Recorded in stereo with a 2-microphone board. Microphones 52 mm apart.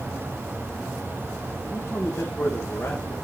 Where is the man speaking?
30° left (ahead or behind), 5 m; by 3.1 s 10° left (ahead or behind), 5 m.